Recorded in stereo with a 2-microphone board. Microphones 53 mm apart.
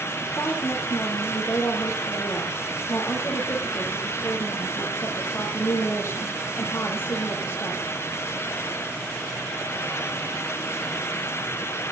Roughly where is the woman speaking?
Left.